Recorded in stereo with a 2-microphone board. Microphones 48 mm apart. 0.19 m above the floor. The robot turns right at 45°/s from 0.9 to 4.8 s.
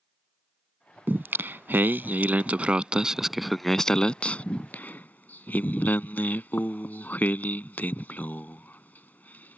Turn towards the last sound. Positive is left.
turn(degrees=40)  # may be behind; listen again after turning